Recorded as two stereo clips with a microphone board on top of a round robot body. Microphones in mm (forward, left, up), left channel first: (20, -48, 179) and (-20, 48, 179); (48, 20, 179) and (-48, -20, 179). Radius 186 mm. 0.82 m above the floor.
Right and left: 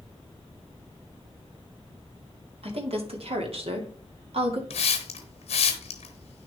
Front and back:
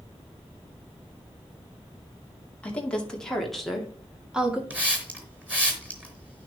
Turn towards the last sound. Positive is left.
turn(degrees=-80)